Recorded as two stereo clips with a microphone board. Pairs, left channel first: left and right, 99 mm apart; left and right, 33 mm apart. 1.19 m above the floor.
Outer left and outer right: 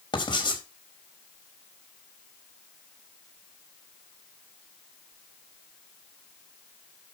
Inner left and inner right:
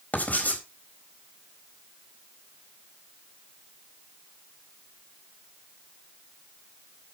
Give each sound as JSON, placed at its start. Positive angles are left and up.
{"t": 0.1, "sound": "writing", "side_deg": 50, "distance_m": 4.0}